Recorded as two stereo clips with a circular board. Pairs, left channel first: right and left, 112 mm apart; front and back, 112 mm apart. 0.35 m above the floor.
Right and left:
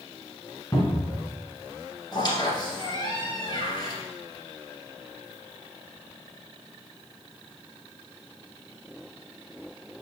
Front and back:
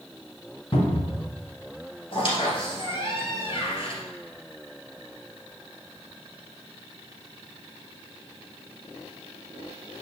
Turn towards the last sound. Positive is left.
turn(degrees=-40)